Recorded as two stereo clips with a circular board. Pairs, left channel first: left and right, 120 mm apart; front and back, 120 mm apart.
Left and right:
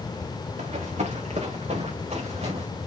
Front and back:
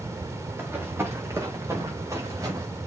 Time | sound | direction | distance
0.6 | running footsteps | 105° right | 4.5 m